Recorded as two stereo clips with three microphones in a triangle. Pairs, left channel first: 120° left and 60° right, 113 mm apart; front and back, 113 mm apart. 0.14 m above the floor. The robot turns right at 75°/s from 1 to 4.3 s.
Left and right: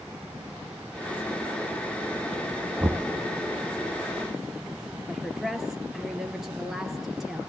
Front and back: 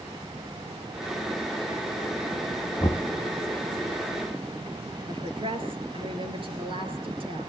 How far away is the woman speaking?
About 3 m.